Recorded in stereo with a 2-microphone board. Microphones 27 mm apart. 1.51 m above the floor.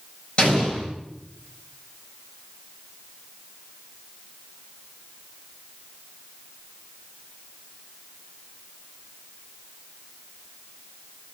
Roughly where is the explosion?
Left.